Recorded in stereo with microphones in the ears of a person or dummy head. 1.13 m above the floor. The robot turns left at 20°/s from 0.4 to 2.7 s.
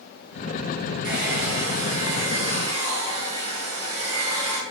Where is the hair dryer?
65° right, 3.5 m; by 4.6 s 95° right, 3.5 m.